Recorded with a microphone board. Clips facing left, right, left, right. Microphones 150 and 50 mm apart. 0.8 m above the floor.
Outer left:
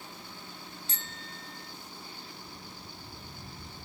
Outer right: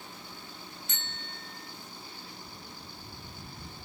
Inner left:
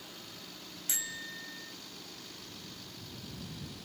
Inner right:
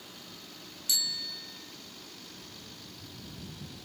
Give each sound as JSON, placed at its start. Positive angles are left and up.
{"t": 0.9, "sound": "a bicycle bell", "side_deg": 35}